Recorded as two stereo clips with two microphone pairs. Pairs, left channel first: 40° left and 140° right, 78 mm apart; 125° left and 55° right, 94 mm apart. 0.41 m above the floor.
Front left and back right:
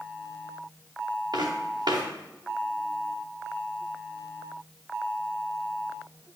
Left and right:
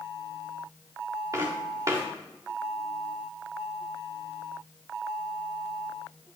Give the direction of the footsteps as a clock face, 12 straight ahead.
4 o'clock.